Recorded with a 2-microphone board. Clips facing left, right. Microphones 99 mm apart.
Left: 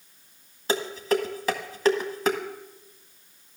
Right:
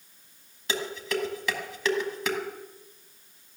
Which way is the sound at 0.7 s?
40° left (ahead or behind).